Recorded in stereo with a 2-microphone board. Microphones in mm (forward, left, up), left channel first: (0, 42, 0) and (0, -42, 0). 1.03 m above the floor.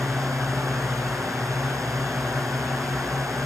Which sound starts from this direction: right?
A drone, at 0.0 s.